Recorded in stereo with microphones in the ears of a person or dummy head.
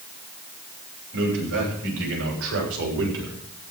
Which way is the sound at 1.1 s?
75° right (ahead or behind).